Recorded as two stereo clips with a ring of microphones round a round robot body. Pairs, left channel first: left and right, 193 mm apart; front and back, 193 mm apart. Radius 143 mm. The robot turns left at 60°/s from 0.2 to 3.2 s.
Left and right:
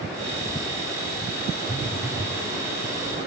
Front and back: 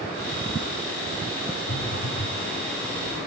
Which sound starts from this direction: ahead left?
A phone buzzing, at 1.7 s.